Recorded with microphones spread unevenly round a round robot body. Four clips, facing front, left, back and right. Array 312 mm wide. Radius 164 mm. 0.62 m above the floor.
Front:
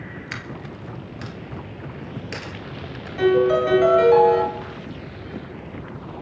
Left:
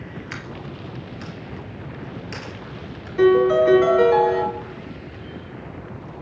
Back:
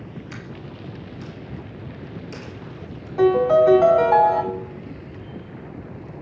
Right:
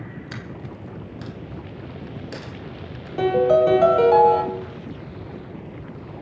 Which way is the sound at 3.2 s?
95° right.